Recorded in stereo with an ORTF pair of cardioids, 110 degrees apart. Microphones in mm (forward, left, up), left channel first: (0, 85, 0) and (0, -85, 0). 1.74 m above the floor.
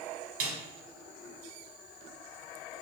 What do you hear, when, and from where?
0.4 s a snare drum: 65° right, 1.1 m